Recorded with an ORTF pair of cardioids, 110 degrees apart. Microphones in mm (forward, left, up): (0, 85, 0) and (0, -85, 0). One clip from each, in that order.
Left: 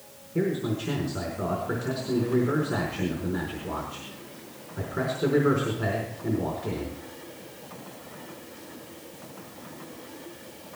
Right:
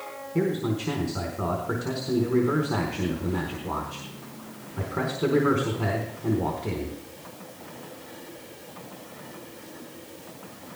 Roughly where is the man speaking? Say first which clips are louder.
Right 1 dB; ahead right.